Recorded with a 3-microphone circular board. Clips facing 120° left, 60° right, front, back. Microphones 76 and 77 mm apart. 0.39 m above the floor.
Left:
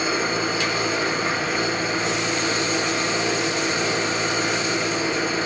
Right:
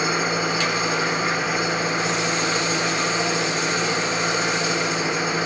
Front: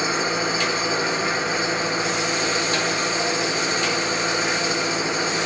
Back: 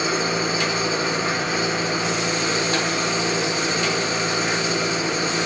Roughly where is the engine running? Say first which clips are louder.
Right 1 dB, even; behind right.